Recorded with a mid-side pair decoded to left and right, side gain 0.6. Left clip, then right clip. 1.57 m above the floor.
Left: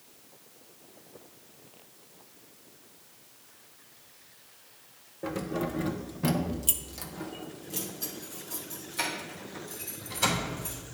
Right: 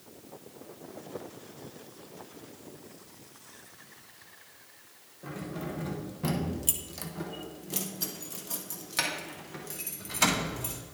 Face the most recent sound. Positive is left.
turn(degrees=-65)